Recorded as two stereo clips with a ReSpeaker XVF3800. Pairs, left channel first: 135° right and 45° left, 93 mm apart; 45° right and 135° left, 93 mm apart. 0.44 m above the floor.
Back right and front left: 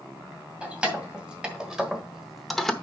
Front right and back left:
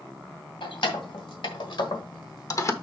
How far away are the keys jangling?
About 2 m.